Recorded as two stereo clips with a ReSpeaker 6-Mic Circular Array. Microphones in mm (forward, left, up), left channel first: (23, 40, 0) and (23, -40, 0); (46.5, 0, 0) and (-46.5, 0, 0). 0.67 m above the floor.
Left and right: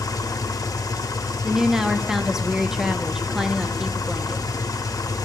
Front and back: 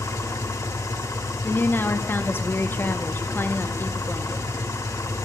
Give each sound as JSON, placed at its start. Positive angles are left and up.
{"t": 0.0, "sound": "an engine running", "azimuth_deg": 50, "distance_m": 0.8}
{"t": 1.4, "sound": "a woman speaking", "azimuth_deg": -15, "distance_m": 0.6}